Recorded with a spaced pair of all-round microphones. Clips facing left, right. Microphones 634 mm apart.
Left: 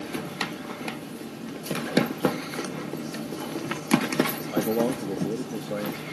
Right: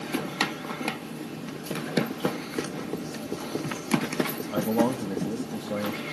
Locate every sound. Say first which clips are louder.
2.6 s writing: right 1 dB; 60° right (ahead or behind), 3 m
4.5 s a man speaking: right 1 dB; 30° right (ahead or behind), 1.1 m